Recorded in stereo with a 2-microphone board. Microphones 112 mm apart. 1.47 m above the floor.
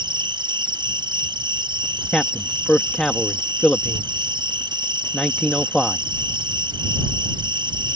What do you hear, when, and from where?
0.0 s an insect: 45° right (ahead or behind)
2.1 s a man speaking: 5° left (ahead or behind)